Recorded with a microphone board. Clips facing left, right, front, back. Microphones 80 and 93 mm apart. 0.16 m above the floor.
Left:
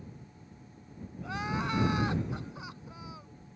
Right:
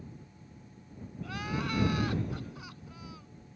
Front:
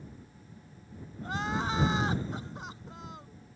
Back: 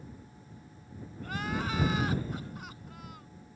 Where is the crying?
45° left.